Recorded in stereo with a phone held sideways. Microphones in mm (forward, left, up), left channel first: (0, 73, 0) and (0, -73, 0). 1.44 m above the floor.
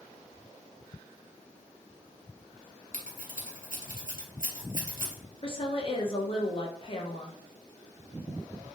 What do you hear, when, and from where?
2.9 s scissors: 80° right, 0.8 m
5.4 s a woman speaking: 40° left (ahead or behind), 0.6 m